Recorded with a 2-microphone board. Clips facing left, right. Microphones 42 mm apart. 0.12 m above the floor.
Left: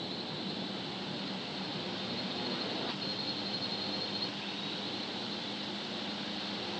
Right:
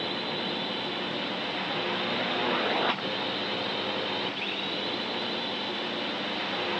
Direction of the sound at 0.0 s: 60° right (ahead or behind).